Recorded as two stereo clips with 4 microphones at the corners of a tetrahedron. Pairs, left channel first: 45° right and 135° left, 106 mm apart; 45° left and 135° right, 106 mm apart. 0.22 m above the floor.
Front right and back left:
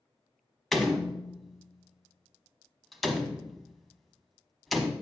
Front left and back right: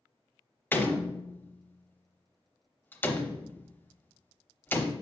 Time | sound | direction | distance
0.7 | a door slam | 40° left | 0.8 m